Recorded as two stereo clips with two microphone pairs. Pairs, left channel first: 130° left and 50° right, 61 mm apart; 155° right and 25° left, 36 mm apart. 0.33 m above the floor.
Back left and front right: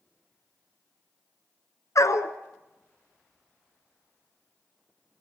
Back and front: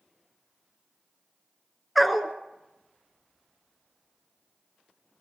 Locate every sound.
1.9 s a dog barking: 115° left, 1.2 m